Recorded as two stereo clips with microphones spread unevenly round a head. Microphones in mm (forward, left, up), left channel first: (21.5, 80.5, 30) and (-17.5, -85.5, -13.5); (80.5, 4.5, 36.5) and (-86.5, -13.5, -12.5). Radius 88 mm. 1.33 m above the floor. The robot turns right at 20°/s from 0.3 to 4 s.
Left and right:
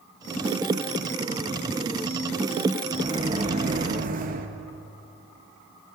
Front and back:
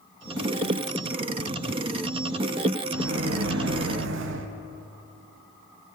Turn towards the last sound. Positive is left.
turn(degrees=-150)